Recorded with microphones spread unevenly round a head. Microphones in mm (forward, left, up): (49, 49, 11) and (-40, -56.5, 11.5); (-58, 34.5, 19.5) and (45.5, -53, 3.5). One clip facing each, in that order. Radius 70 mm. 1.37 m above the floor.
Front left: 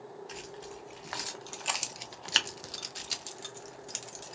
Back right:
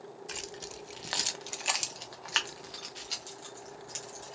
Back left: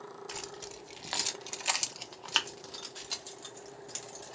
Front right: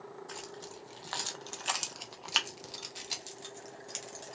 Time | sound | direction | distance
0.3 | keys jangling | 160° right | 0.9 m